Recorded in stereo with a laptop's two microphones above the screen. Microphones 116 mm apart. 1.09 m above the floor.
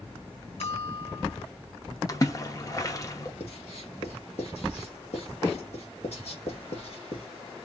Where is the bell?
75° left (ahead or behind), 2.0 m.